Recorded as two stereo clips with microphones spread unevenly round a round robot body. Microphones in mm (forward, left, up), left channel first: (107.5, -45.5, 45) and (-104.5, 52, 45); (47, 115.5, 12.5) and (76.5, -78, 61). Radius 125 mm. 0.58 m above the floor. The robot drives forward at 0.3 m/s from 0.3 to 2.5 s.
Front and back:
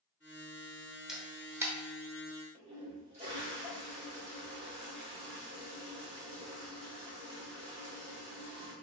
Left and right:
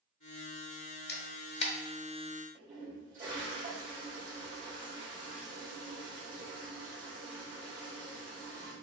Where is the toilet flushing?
145° right, 2 m.